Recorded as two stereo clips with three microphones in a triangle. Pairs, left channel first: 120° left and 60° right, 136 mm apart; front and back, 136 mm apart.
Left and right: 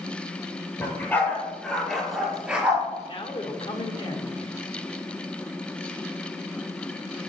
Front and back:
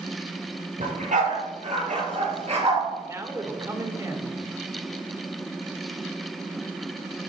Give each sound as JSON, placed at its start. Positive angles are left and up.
{"t": 0.8, "sound": "a dog barking", "azimuth_deg": -165, "distance_m": 4.5}
{"t": 3.0, "sound": "a man speaking", "azimuth_deg": 125, "distance_m": 1.7}